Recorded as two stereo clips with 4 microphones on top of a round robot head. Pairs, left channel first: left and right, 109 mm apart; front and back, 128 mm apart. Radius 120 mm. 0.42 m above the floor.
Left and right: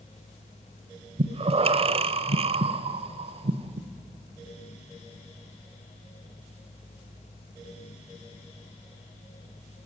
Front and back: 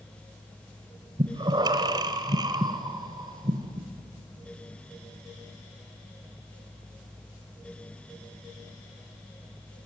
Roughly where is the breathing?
Behind right.